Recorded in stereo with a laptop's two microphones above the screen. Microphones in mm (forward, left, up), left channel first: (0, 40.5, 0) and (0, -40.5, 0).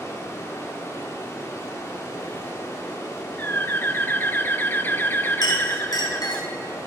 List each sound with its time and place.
0.0 s running water: 35° left (ahead or behind), 2.5 m
3.4 s a bird: 25° left (ahead or behind), 0.7 m
5.4 s a clink: 55° left (ahead or behind), 4.5 m